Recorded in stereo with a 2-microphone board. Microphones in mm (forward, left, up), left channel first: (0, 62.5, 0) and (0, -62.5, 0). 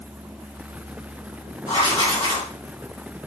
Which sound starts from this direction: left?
Writing, at 1.7 s.